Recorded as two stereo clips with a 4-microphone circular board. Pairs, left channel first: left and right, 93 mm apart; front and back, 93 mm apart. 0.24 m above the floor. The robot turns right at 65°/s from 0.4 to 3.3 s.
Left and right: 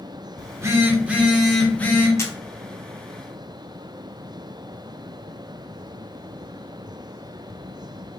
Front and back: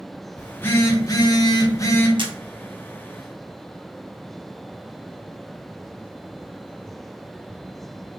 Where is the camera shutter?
150° left, 0.8 m; by 2.3 s 160° left, 0.8 m.